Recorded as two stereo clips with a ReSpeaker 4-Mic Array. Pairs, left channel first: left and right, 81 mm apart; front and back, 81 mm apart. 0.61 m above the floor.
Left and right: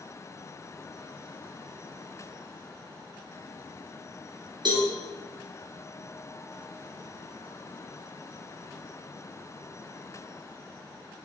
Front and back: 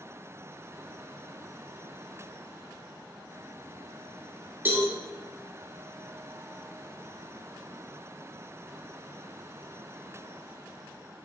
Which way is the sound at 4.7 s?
115° right.